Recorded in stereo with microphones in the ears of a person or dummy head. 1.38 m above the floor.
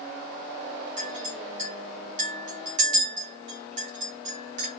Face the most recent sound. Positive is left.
turn(degrees=-40)  # may be behind; listen again after turning